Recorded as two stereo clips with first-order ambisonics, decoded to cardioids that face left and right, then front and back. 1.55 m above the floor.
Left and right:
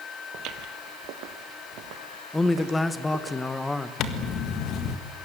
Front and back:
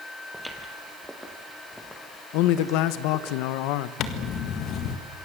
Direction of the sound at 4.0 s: 45° left.